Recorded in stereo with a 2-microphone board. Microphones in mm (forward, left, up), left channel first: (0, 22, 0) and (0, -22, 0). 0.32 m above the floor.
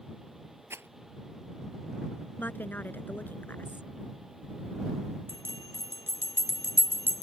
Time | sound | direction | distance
0.7 | a rattle | 75° right (ahead or behind) | ?
2.4 | a woman speaking | 45° left (ahead or behind) | ?
5.3 | a bell | 55° right (ahead or behind) | ?